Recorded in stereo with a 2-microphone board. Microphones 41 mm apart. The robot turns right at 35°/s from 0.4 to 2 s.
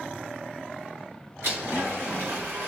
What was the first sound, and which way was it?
A blender, 60° right (ahead or behind).